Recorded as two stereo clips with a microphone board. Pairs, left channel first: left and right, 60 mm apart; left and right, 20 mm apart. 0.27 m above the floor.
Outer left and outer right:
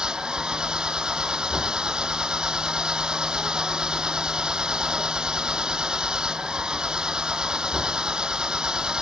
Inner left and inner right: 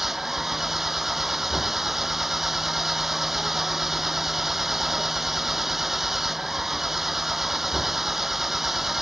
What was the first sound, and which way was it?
An engine running, 15° right (ahead or behind).